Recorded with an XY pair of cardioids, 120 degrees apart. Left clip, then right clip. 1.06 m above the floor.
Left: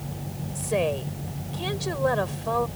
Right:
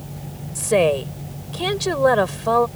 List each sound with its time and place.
0.6 s a woman speaking: 45° right